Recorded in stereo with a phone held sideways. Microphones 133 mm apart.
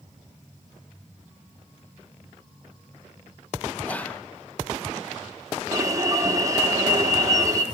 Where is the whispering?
10° left (ahead or behind), 0.5 m.